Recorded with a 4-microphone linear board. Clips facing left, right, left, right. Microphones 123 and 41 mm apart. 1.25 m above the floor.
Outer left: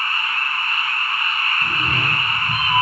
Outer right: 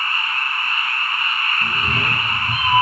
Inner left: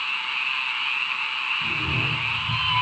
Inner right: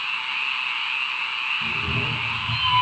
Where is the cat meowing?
20° right (ahead or behind), 3 m; by 2.8 s 30° right (ahead or behind), 3.5 m.